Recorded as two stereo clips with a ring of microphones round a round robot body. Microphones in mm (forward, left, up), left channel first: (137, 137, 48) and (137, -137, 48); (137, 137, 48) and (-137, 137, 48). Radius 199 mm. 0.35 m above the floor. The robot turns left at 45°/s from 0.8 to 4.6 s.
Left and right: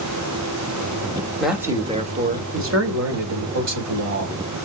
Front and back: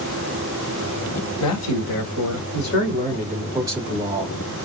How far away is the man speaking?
About 2 m.